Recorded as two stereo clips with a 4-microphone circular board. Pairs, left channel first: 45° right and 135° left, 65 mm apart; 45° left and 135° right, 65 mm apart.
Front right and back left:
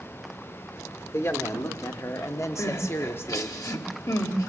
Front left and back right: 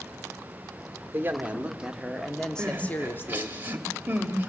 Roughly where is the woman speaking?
Right.